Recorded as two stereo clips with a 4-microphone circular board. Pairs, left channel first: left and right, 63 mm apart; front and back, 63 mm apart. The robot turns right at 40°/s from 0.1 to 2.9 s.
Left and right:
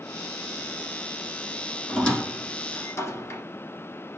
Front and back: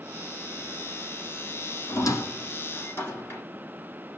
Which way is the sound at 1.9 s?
10° left.